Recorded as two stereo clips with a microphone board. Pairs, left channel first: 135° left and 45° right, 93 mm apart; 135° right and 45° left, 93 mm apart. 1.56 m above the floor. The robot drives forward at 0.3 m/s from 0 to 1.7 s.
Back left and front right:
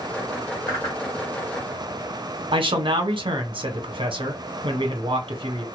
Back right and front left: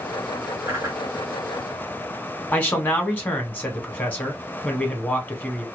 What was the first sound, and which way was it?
A whoosh, 90° left.